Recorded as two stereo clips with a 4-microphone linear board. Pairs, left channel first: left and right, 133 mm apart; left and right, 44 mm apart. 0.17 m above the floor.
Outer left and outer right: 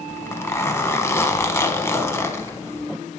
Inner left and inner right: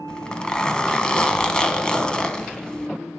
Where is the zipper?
20° left (ahead or behind), 0.6 m.